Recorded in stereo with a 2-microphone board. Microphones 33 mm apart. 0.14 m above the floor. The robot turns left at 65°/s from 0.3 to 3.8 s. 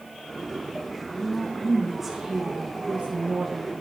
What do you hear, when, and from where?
1.1 s a woman speaking: 50° left, 1.6 m; by 3.7 s 120° right, 1.6 m